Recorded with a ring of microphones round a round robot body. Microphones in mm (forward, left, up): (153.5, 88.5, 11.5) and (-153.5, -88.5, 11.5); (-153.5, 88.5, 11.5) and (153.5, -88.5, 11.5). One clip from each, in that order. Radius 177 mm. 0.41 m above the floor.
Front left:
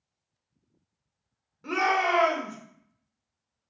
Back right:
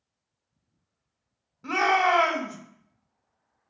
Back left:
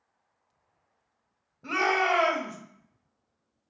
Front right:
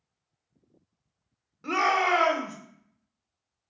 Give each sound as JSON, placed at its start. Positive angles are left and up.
{"t": 1.6, "sound": "a shout", "azimuth_deg": -60, "distance_m": 1.0}